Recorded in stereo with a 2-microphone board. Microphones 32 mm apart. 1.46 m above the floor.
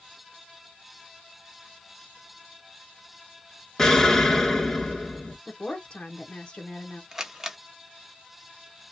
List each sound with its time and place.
3.8 s an explosion: 15° left (ahead or behind), 0.8 m
5.5 s a woman speaking: 30° left (ahead or behind), 0.9 m
7.1 s a camera shutter: 15° right (ahead or behind), 0.7 m